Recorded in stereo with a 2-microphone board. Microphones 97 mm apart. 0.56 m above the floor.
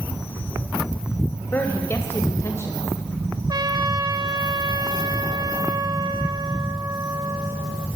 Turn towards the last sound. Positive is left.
turn(degrees=-50)  # may be behind; listen again after turning